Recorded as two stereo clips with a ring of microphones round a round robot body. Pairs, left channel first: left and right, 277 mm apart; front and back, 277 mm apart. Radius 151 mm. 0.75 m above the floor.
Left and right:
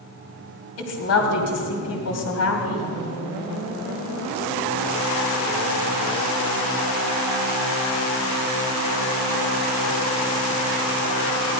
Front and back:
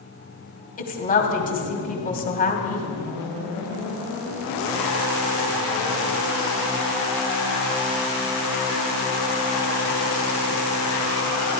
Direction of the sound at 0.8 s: 60° left.